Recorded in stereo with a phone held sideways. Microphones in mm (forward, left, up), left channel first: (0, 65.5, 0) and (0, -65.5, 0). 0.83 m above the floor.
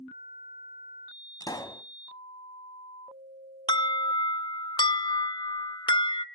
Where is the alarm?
35° left (ahead or behind), 0.5 m.